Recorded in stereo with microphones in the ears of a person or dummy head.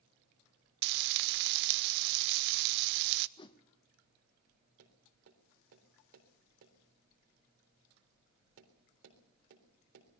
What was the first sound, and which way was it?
Frying, 55° right (ahead or behind).